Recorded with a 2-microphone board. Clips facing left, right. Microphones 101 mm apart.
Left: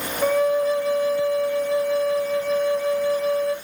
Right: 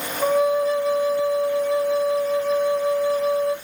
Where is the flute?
30° right (ahead or behind), 2.5 m.